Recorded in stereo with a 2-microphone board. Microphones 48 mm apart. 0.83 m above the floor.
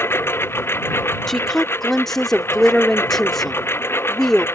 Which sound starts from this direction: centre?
A woman speaking, at 1.3 s.